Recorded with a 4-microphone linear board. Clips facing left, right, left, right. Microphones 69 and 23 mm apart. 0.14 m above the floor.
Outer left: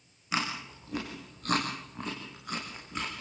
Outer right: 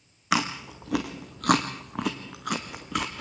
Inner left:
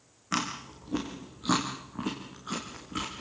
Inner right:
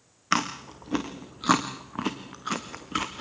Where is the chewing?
75° right (ahead or behind), 3 m.